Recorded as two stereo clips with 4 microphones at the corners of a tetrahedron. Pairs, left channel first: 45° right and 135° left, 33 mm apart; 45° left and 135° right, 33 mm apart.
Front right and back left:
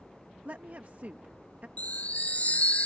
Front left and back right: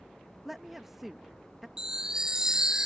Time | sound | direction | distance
0.5 | a woman speaking | 145° left | ?
1.8 | a chime | 70° right | ?